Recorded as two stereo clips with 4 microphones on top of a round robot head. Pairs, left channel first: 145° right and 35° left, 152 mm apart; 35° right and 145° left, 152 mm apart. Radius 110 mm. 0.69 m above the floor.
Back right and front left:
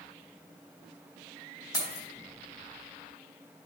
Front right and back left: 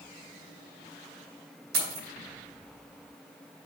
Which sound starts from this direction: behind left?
Keys jangling, at 1.7 s.